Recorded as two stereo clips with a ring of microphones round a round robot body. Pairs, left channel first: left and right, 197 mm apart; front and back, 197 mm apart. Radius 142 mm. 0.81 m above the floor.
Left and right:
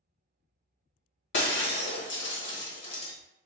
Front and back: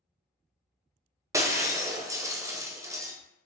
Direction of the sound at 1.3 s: 105° left.